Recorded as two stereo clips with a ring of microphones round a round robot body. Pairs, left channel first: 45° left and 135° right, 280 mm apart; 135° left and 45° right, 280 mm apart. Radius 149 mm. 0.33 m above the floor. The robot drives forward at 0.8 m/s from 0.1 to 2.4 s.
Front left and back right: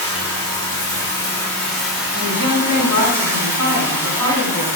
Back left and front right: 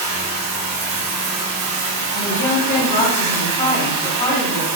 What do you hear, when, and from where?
0.0 s running water: 30° right, 3.5 m; by 4.8 s 55° right, 2 m
2.1 s a woman speaking: 160° right, 2 m; by 4.8 s 165° right, 2.5 m